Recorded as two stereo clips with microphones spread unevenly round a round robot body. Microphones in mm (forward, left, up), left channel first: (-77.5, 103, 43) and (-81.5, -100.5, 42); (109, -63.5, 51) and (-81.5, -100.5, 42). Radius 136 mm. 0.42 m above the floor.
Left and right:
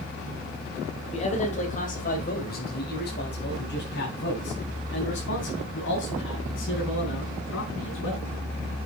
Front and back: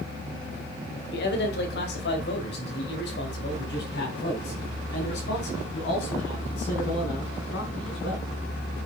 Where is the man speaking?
30° left, 1.7 m; by 8.3 s 55° left, 5 m.